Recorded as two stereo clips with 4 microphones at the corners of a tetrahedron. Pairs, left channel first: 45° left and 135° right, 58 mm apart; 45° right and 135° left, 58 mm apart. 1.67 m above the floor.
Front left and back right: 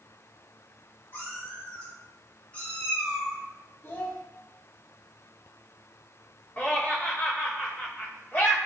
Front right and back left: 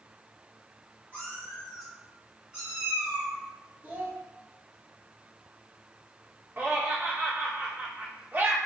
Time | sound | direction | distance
1.1 | a cat meowing | 20° left | 1.4 m
3.8 | a child speaking | 80° left | 0.7 m
6.6 | laughter | 90° left | 0.8 m